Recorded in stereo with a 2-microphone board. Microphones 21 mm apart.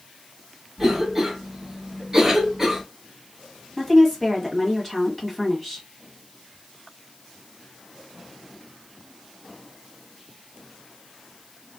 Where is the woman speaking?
10° left (ahead or behind), 1.3 m.